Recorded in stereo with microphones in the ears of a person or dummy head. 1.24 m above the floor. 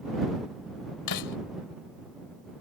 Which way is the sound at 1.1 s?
65° left (ahead or behind).